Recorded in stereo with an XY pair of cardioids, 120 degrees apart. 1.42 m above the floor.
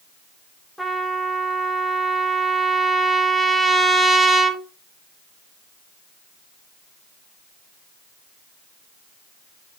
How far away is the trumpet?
About 0.6 m.